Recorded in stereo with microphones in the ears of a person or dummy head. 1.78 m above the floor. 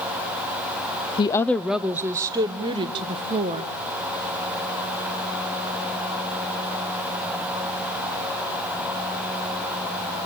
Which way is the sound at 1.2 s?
25° left (ahead or behind).